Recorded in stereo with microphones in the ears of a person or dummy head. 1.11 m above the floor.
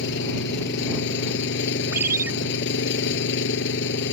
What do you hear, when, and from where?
0.0 s an engine running: 65° left (ahead or behind)
1.9 s a ringtone: 5° right (ahead or behind)